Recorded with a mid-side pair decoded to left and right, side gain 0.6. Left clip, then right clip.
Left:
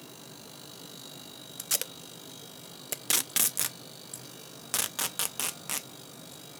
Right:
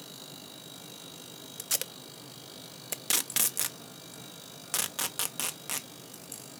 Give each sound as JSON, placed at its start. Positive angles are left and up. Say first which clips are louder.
{"t": 1.6, "sound": "tape being pulled", "louder": "left 1 dB", "azimuth_deg": 5, "distance_m": 0.5}